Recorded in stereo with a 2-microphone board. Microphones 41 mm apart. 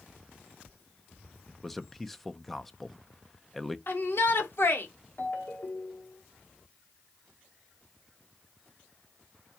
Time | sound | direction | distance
1.5 | a man speaking | 5° left (ahead or behind) | 0.6 m
3.9 | a shout | 65° left (ahead or behind) | 1.8 m
5.2 | a ringtone | 60° left (ahead or behind) | 1.7 m